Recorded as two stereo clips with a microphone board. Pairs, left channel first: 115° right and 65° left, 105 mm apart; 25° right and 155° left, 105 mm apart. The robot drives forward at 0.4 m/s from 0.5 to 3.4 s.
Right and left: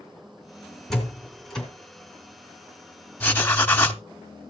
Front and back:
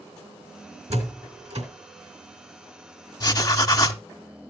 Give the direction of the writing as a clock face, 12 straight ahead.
2 o'clock.